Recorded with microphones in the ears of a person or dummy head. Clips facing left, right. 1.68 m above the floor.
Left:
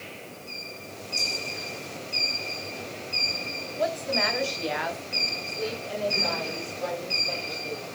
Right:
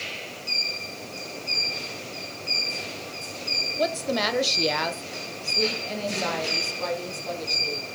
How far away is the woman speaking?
About 1.1 m.